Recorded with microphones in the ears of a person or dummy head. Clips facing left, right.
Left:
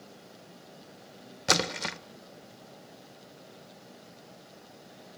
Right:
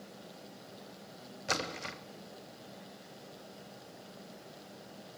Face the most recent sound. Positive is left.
turn(degrees=65)  # may be behind; listen again after turning